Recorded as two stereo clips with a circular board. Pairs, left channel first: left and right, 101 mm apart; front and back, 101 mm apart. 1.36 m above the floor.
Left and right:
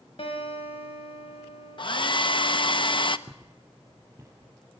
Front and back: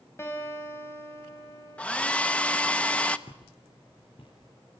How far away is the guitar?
About 5.5 m.